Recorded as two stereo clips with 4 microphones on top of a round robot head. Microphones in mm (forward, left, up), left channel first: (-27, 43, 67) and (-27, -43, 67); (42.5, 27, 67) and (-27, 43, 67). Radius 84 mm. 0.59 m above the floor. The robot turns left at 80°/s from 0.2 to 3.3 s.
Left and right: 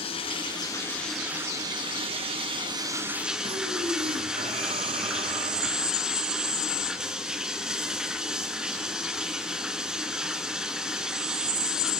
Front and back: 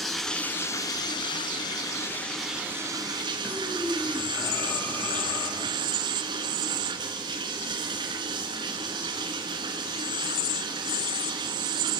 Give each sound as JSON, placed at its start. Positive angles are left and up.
{"t": 0.0, "sound": "running water", "azimuth_deg": 75, "distance_m": 3.5}
{"t": 3.4, "sound": "breathing", "azimuth_deg": -80, "distance_m": 2.5}